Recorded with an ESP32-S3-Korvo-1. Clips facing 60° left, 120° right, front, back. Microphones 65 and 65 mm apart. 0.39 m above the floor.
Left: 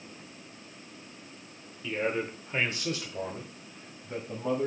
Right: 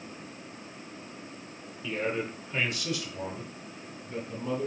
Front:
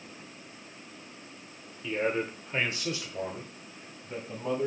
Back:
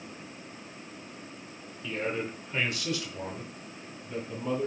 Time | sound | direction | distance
1.8 | a man speaking | 20° right | 0.8 m